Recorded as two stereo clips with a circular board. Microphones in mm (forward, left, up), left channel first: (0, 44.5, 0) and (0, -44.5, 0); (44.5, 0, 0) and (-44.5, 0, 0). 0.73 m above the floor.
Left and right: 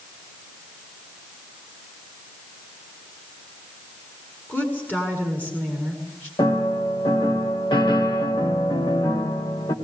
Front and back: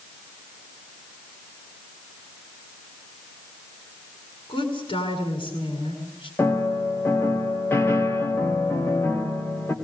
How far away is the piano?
About 3 m.